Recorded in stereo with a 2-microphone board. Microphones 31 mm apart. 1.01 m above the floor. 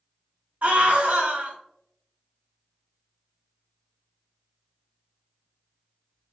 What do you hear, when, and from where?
0.6 s a scream: 60° right (ahead or behind), 0.7 m